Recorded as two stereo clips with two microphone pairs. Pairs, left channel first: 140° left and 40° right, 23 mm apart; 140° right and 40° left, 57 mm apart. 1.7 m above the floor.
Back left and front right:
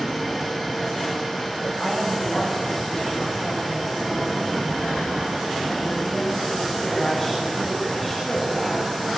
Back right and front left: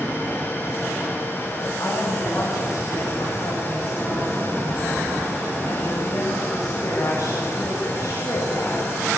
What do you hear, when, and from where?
1.8 s a woman speaking: 135° right, 8.5 m